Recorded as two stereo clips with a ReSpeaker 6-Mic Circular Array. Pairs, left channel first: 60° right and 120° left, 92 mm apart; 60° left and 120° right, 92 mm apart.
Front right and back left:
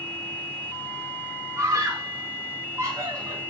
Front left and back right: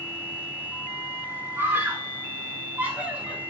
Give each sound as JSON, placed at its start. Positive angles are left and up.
{"t": 1.6, "sound": "a scream", "azimuth_deg": 180, "distance_m": 4.0}